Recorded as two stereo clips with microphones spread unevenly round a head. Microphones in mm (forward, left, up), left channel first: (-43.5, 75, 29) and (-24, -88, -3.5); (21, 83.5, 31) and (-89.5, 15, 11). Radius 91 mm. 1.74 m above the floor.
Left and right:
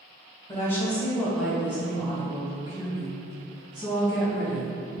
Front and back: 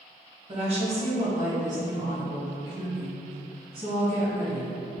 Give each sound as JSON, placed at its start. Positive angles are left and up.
{"t": 0.5, "sound": "a woman speaking", "azimuth_deg": 165, "distance_m": 1.0}